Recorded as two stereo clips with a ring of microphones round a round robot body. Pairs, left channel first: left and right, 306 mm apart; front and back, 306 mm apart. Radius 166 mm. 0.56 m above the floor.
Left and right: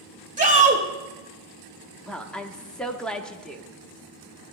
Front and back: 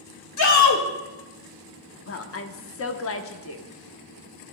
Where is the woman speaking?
5° left, 0.9 m.